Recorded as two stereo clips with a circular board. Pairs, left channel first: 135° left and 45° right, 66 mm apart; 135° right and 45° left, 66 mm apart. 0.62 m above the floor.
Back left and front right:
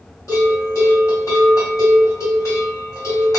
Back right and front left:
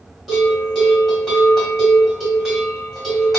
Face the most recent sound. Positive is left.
turn(degrees=135)